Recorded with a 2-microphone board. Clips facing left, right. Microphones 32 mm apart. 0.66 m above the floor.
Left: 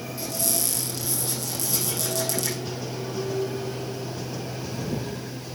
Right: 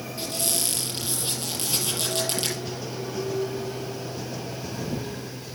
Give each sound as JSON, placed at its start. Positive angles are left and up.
{"t": 0.2, "sound": "a squeak", "side_deg": -50, "distance_m": 4.0}